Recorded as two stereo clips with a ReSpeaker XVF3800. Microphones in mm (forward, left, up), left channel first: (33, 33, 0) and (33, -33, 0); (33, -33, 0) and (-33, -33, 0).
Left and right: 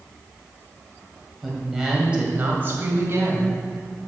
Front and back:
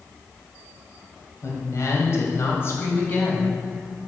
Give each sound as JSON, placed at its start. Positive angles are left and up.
{"t": 1.4, "sound": "a woman speaking", "azimuth_deg": 0, "distance_m": 2.0}